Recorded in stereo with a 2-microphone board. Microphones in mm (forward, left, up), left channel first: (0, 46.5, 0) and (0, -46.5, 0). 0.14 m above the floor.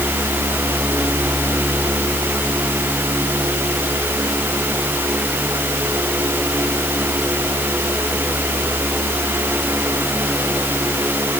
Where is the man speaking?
No man speaking in this recording.